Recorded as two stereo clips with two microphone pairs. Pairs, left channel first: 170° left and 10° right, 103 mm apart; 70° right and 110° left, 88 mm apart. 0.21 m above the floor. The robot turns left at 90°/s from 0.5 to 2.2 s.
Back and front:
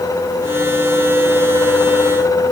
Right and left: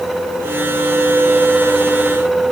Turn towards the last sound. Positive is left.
No sound to turn to.